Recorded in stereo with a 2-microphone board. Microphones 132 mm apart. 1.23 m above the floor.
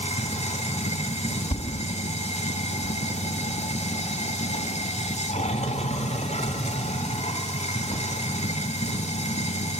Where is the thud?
50° left (ahead or behind), 2 m.